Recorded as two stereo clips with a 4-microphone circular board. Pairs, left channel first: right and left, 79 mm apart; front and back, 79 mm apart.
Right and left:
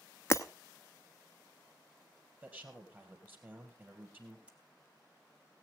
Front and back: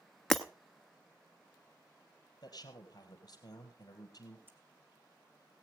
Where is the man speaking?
25° left, 2.5 m.